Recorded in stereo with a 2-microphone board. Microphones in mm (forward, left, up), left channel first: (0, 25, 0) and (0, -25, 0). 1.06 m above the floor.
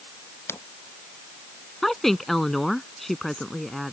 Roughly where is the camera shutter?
Left.